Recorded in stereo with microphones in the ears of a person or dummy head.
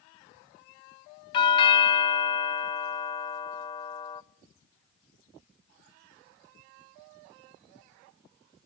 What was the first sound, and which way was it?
A doorbell, 35° left (ahead or behind).